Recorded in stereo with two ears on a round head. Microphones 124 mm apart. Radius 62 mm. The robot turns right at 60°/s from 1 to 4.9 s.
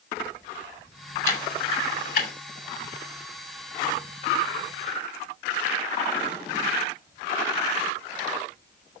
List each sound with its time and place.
1.2 s ticking: 20° left (ahead or behind), 2.5 m; by 2.3 s 70° left (ahead or behind), 2.5 m